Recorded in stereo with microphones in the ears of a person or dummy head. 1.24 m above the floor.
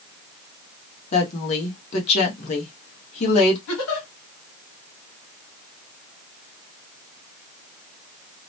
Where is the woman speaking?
40° left (ahead or behind), 1.0 m.